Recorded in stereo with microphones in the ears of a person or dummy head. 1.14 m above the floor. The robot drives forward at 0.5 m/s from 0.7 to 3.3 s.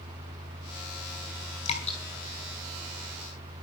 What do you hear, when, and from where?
1.6 s dripping: 35° left (ahead or behind), 5 m